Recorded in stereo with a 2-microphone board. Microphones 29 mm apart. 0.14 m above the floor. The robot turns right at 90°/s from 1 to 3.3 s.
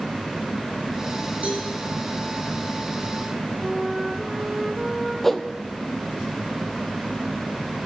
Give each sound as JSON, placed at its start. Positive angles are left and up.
{"t": 1.4, "sound": "a cowbell", "side_deg": -70, "distance_m": 6.0}
{"t": 3.6, "sound": "a flute", "side_deg": -5, "distance_m": 2.0}
{"t": 5.2, "sound": "a whoosh", "side_deg": 15, "distance_m": 0.9}